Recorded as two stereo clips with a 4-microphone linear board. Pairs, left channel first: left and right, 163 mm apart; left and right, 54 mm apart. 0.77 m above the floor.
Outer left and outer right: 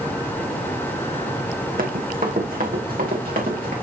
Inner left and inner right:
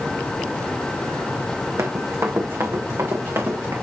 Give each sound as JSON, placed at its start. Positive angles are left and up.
{"t": 1.8, "sound": "running footsteps", "side_deg": -60, "distance_m": 1.9}